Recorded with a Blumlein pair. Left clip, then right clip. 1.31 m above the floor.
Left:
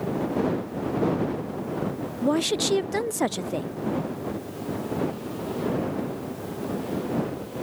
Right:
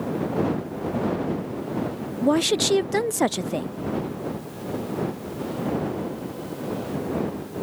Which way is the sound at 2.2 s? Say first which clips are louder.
Right 3 dB; 10° right.